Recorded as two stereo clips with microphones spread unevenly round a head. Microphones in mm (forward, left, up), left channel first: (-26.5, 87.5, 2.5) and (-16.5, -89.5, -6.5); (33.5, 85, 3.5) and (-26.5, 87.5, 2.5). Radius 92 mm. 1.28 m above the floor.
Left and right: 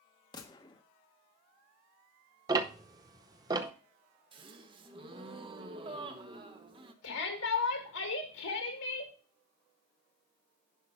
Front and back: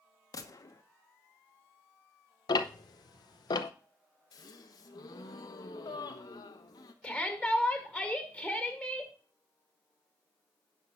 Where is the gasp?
20° right, 0.8 m.